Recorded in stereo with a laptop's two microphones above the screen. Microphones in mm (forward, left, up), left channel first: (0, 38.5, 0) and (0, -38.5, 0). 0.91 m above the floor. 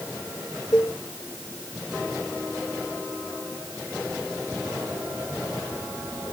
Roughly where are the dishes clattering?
Left.